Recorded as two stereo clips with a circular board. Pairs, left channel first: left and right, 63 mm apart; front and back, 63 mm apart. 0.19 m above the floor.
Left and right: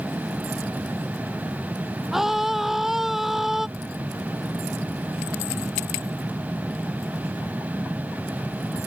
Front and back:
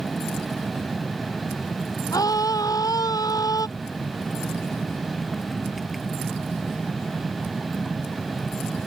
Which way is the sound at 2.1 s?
5° right.